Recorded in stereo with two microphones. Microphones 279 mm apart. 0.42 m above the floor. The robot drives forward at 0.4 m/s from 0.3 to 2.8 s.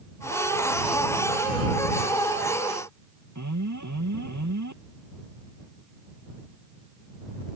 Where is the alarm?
80° right.